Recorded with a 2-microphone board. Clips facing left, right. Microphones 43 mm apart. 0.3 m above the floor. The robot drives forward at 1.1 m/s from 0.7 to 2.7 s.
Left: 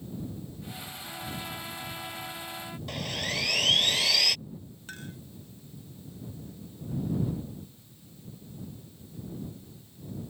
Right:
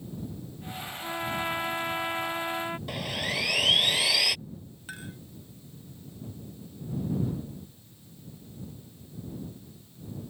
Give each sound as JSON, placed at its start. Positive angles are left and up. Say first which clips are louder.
{"t": 1.0, "sound": "a trumpet", "louder": "right 9 dB", "side_deg": -40}
{"t": 2.9, "sound": "sawing", "louder": "right 2 dB", "side_deg": -5}
{"t": 4.9, "sound": "a clink", "louder": "right 1 dB", "side_deg": -5}